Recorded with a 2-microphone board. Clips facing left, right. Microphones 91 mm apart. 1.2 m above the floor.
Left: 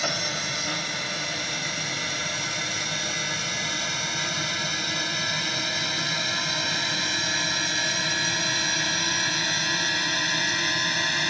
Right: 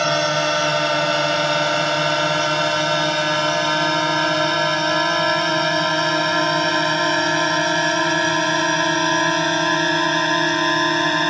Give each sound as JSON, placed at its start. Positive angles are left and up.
{"t": 0.0, "sound": "a drone", "side_deg": -70}